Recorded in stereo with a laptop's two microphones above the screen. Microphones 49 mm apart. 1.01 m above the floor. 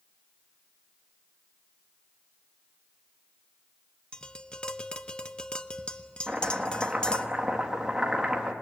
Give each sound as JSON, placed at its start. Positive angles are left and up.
{"t": 4.1, "sound": "tapping", "side_deg": 20, "distance_m": 1.0}
{"t": 6.3, "sound": "chopping", "side_deg": -15, "distance_m": 1.7}